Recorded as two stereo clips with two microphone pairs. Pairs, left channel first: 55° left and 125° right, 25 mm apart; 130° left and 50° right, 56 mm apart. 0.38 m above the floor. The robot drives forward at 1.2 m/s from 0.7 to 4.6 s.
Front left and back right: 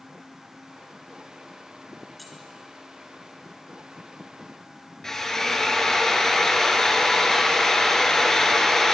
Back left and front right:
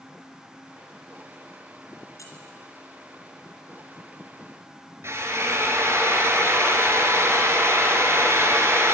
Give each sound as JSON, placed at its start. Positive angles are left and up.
{"t": 2.2, "sound": "keys jangling", "azimuth_deg": 140, "distance_m": 3.5}
{"t": 5.0, "sound": "a drill", "azimuth_deg": -15, "distance_m": 2.5}